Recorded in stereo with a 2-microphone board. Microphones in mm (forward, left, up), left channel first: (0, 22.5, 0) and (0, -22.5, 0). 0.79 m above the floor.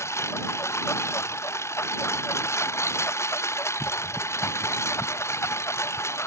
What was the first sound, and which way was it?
A lawn mower, 85° left.